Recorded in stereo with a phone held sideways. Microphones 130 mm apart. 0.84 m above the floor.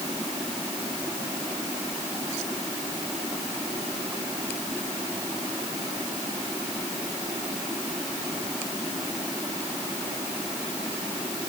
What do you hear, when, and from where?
Only background noise.